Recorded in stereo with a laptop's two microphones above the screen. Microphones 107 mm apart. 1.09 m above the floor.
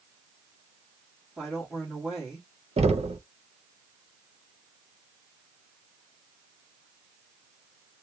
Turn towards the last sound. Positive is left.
turn(degrees=-70)  # may be behind; listen again after turning